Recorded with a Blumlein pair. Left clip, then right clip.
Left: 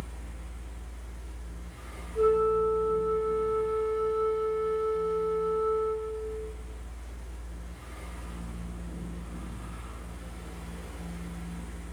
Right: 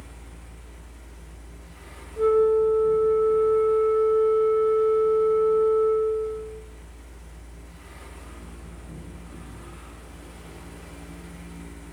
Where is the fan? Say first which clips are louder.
Left 1 dB; 10° right, 0.8 m.